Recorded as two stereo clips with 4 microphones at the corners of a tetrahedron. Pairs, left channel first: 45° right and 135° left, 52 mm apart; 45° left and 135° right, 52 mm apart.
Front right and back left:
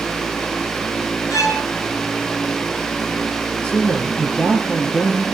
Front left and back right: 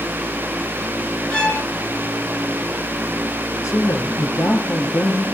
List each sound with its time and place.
1.3 s a violin: 25° right, 4 m
3.6 s a man speaking: 20° left, 6.5 m